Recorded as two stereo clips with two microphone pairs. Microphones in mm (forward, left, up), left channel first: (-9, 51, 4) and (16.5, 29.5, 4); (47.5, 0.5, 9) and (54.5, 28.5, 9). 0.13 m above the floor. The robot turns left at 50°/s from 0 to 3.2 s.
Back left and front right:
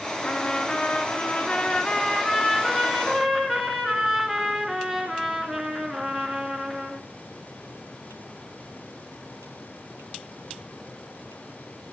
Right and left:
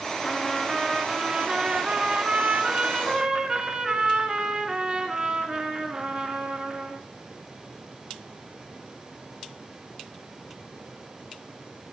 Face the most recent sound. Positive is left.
turn(degrees=50)